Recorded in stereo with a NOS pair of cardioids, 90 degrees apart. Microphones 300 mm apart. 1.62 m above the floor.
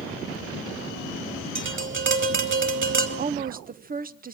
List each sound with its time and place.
1.6 s tapping: 40° right, 4 m
3.2 s a woman speaking: 30° right, 1.3 m